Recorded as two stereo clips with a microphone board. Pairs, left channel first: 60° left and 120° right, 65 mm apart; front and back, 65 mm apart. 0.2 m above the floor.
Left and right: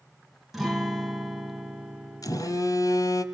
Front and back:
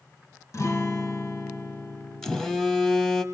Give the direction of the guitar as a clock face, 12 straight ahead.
1 o'clock.